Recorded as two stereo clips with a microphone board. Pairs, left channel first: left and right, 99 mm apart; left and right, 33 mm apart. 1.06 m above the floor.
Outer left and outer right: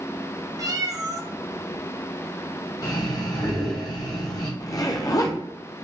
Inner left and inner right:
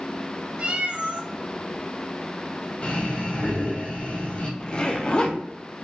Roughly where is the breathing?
Left.